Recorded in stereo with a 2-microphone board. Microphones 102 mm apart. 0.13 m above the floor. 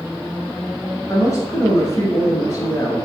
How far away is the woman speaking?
About 1.2 m.